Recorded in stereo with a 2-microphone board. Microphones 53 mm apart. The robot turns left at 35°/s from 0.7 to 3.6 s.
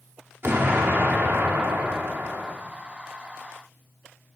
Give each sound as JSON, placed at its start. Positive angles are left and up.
{"t": 0.4, "sound": "an explosion", "azimuth_deg": -65, "distance_m": 1.8}